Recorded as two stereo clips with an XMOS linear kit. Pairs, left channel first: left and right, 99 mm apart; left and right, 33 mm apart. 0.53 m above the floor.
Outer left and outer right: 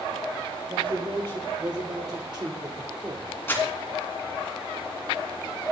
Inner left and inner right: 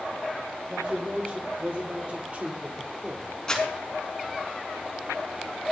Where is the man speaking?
60° right (ahead or behind), 2.5 m; by 3.3 s 40° right (ahead or behind), 2 m.